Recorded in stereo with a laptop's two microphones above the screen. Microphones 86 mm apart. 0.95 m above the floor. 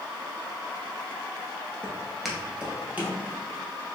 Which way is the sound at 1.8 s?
15° left (ahead or behind).